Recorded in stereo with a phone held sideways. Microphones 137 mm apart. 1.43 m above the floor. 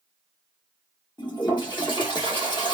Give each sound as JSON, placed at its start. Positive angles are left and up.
{"t": 1.2, "sound": "a toilet flushing", "side_deg": 30, "distance_m": 1.3}